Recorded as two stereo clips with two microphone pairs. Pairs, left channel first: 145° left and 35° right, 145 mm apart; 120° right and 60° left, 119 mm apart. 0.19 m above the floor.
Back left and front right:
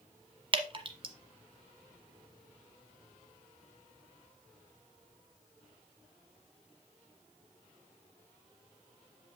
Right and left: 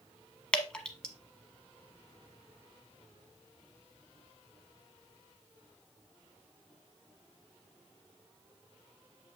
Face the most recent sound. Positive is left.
turn(degrees=-40)